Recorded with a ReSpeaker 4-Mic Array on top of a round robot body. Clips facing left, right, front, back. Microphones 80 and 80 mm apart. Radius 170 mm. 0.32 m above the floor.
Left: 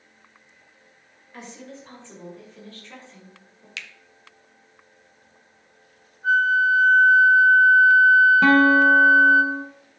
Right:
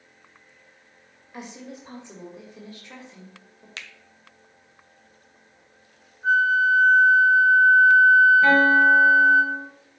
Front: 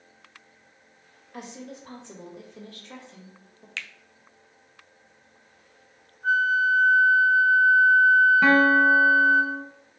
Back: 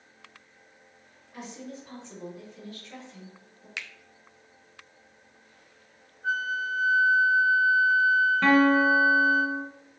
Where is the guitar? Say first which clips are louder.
Left 1 dB, front 2 dB; 80° left, 0.8 m.